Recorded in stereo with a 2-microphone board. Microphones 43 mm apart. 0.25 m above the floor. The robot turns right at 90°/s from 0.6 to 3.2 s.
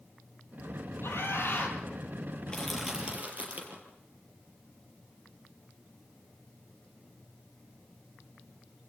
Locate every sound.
1.0 s a scream: 80° left, 8 m; by 1.8 s 145° left, 8 m
2.5 s crushing: 25° left (ahead or behind), 6 m; by 3.8 s 40° right (ahead or behind), 6 m